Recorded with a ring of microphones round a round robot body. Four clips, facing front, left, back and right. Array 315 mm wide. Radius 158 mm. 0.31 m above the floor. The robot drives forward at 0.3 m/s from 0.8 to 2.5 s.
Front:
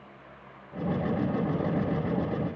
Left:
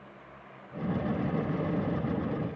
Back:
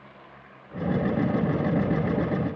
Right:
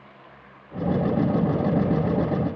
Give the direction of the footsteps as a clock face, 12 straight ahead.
No footsteps in this recording.